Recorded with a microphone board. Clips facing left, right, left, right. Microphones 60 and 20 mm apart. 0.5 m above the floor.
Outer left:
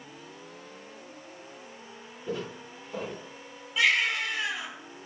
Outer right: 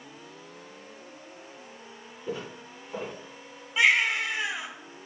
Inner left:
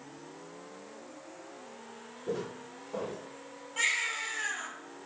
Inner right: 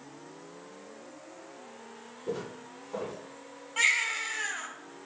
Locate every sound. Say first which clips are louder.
2.3 s footsteps: outer left 1 dB, even; centre (ahead or behind), 5 m
3.8 s a baby crying: outer right 2 dB, inner right 4 dB; 15° right (ahead or behind), 3 m